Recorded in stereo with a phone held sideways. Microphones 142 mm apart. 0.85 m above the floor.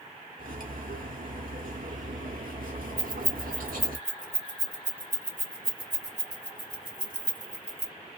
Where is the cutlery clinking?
85° right, 0.9 m.